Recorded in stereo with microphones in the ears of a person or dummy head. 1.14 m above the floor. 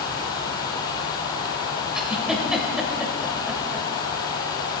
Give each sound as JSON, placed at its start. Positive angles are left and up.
{"t": 1.9, "sound": "a giggle", "side_deg": -5, "distance_m": 2.5}